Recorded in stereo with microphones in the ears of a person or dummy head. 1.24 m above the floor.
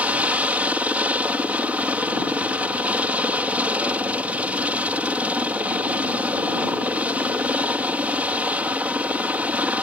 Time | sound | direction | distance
0.0 | a helicopter | 10° right (ahead or behind) | ?